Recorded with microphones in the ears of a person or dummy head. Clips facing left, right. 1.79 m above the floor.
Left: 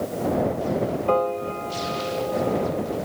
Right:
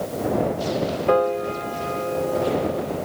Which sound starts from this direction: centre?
A piano, at 1.1 s.